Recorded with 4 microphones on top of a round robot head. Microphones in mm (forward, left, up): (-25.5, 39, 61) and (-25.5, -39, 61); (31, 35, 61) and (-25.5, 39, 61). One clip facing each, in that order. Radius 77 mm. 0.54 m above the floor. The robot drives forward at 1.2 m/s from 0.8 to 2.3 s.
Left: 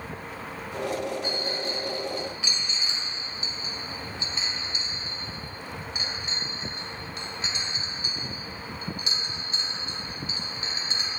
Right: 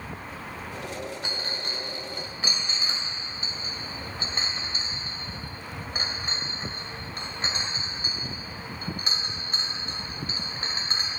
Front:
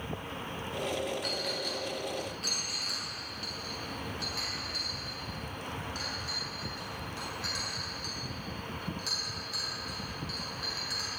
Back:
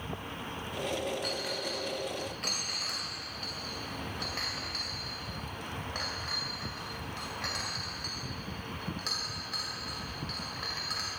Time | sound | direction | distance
1.2 | a clink | 95° right | 1.5 m